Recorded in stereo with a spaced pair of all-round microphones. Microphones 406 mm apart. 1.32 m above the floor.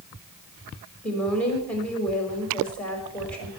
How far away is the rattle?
I don't hear a rattle.